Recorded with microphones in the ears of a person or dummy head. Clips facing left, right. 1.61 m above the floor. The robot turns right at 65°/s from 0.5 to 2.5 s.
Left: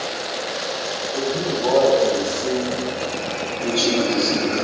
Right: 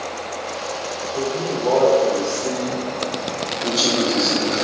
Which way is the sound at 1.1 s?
55° left.